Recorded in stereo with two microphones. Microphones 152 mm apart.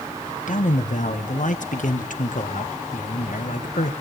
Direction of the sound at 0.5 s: 65° left (ahead or behind).